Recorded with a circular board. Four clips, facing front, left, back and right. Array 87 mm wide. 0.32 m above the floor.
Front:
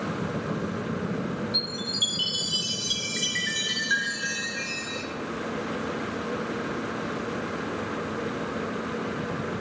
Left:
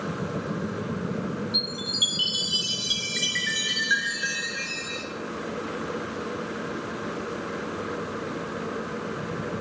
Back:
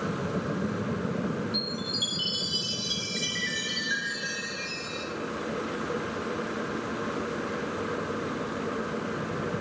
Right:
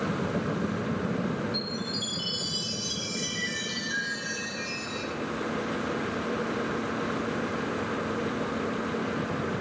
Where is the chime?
65° left, 2.5 m.